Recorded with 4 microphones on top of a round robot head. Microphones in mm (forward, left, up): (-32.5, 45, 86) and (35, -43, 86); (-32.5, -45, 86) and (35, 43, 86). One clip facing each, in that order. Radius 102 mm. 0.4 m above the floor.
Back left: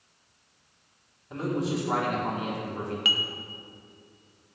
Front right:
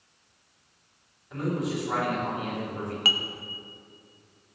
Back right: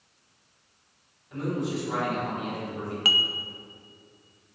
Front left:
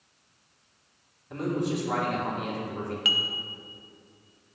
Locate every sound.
1.3 s a man speaking: 70° left, 3.5 m
3.0 s dishes clattering: 90° right, 0.8 m